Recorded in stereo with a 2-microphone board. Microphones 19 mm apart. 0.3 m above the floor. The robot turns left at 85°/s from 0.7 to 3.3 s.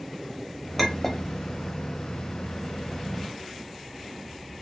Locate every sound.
0.8 s a clink: centre (ahead or behind), 0.5 m; by 1.2 s 20° left (ahead or behind), 0.5 m